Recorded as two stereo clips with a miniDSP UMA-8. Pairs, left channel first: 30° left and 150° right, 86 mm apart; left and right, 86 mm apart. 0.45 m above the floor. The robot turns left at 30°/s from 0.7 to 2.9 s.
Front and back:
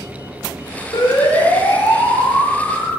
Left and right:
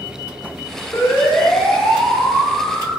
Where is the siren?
40° left, 6.5 m; by 3.0 s 15° right, 9 m.